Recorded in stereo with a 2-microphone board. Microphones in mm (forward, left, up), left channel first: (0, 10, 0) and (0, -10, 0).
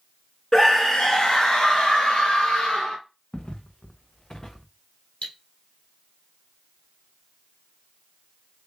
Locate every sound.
0.5 s a scream: 30° left (ahead or behind), 1.3 m; by 3.0 s 60° left (ahead or behind), 2.5 m
3.3 s footsteps: 70° left (ahead or behind), 1.3 m; by 4.7 s 20° left (ahead or behind), 0.7 m
5.2 s cutlery clinking: 70° left (ahead or behind), 2.5 m